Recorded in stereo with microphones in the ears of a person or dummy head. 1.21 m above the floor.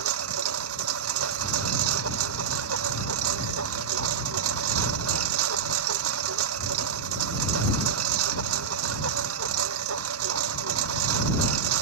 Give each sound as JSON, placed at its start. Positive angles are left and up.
{"t": 0.0, "sound": "a lawn mower", "side_deg": -85}